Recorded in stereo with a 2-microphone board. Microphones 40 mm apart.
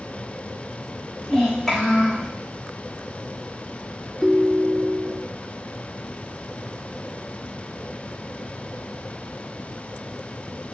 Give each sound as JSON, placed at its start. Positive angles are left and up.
{"t": 1.3, "sound": "a child speaking", "side_deg": 5, "distance_m": 4.0}
{"t": 4.2, "sound": "a ringtone", "side_deg": -5, "distance_m": 0.7}